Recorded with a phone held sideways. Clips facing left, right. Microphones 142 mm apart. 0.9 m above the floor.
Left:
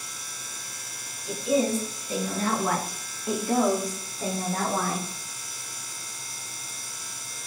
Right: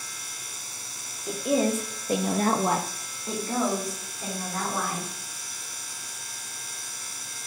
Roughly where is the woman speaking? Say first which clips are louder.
Even; right.